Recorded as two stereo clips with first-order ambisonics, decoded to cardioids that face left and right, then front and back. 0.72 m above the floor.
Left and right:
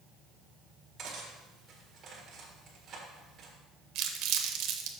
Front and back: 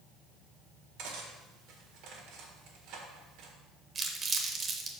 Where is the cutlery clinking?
150° right, 1.5 m.